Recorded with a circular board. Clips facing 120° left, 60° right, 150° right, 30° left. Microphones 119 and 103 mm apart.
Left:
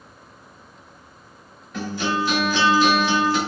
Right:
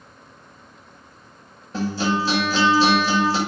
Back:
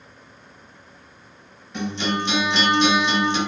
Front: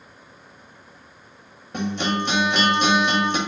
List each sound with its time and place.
1.7 s a guitar: 5° right, 0.6 m